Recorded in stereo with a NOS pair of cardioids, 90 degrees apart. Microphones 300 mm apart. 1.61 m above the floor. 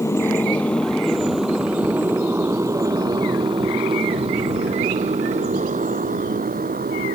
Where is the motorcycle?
10° left; by 7.2 s 30° right.